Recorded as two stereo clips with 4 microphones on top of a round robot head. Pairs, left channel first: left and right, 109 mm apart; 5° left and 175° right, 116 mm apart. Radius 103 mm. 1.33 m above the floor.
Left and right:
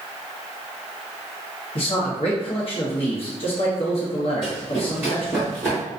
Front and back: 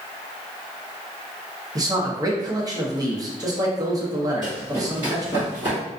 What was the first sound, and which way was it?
A man speaking, 125° left.